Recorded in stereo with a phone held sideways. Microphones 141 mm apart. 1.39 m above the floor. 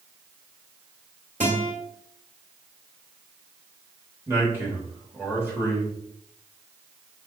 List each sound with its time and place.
1.4 s a guitar: 55° right (ahead or behind), 2.5 m
4.3 s a man speaking: 15° right (ahead or behind), 1.8 m